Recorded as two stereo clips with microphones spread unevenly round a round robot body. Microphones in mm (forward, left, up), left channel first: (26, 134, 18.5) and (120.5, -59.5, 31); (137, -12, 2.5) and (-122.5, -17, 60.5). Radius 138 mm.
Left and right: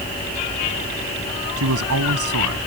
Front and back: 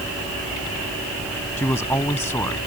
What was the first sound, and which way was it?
A man speaking, 80° right.